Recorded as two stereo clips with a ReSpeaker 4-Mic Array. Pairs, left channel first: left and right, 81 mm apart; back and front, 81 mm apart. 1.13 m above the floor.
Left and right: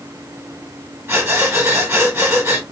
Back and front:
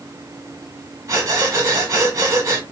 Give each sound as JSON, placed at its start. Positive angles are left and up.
{"t": 1.1, "sound": "breathing", "azimuth_deg": -35, "distance_m": 1.4}